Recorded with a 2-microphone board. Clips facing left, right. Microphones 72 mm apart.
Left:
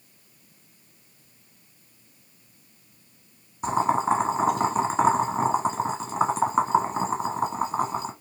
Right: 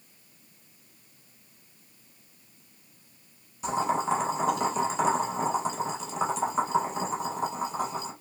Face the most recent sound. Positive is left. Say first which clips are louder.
# left 4 dB
turn(degrees=35)  # may be behind; listen again after turning